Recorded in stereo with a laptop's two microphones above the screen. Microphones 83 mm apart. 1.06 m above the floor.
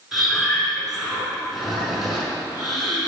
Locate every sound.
0.1 s breathing: centre (ahead or behind), 5 m